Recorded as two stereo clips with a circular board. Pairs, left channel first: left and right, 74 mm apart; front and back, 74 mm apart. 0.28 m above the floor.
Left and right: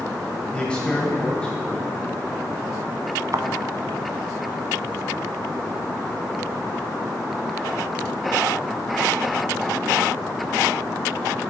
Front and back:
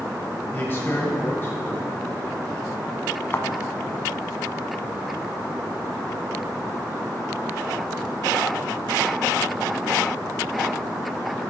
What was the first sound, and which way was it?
A man speaking, 25° left.